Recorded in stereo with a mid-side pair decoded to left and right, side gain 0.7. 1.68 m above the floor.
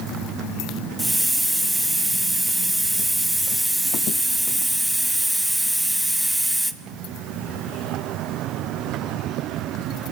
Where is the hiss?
Straight ahead, 0.5 m.